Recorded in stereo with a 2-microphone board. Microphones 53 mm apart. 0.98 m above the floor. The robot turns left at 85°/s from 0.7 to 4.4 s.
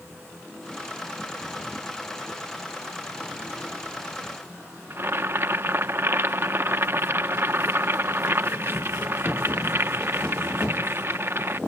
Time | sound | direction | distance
4.9 | boiling | 45° right (ahead or behind) | 0.7 m